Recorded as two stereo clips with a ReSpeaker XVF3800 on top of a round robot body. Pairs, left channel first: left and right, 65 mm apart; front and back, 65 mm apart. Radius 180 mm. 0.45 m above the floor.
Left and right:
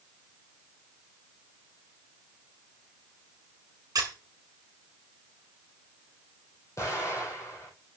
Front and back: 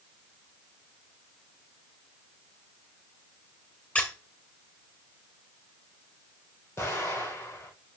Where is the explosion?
50° left, 5 m.